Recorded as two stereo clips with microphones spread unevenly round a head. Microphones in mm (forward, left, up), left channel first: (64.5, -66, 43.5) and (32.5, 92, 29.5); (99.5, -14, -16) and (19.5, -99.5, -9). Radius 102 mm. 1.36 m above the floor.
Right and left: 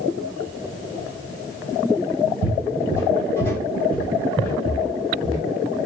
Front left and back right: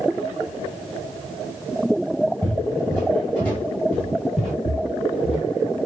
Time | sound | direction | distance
2.4 | footsteps | 20° right | 1.9 m
4.7 | footsteps | 40° left | 1.9 m